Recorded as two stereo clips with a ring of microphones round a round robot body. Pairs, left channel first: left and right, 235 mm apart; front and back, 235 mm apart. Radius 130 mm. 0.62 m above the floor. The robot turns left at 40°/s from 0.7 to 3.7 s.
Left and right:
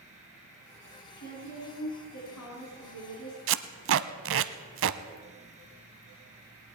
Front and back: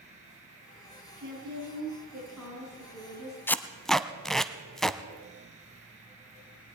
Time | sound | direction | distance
1.2 | a woman speaking | 135° left | 4.5 m
3.5 | tape being pulled | 80° right | 0.7 m